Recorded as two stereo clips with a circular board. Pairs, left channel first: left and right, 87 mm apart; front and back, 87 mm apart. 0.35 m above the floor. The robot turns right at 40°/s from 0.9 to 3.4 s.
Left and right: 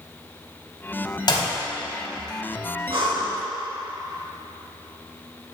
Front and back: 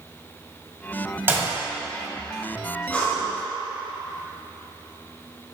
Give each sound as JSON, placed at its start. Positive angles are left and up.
{"t": 1.3, "sound": "a clap", "azimuth_deg": 115, "distance_m": 1.7}
{"t": 2.9, "sound": "breathing", "azimuth_deg": -75, "distance_m": 2.5}